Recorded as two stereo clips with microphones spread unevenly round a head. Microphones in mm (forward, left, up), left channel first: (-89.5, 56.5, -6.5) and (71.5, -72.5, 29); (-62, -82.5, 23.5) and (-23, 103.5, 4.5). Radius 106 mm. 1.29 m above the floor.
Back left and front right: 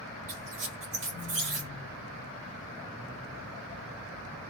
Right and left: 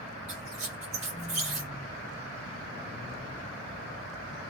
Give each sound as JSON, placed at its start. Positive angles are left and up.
{"t": 0.3, "sound": "a squeak", "azimuth_deg": 15, "distance_m": 1.6}